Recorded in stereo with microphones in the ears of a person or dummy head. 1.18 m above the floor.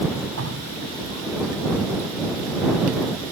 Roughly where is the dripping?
Right.